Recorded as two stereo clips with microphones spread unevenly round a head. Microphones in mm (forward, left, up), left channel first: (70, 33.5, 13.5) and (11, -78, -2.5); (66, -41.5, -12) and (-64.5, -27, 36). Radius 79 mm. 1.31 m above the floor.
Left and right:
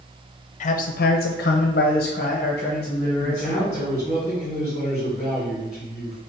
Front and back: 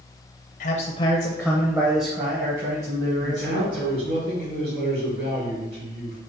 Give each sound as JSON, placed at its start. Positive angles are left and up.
{"t": 0.6, "sound": "a man speaking", "azimuth_deg": 25, "distance_m": 0.5}
{"t": 3.2, "sound": "a man speaking", "azimuth_deg": 135, "distance_m": 2.0}